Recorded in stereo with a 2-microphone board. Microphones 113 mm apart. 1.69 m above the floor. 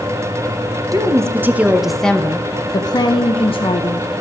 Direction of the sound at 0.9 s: 30° right (ahead or behind).